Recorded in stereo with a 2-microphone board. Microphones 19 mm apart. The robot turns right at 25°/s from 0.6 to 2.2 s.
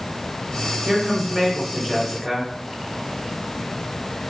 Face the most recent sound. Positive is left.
turn(degrees=10)  # may be behind; listen again after turning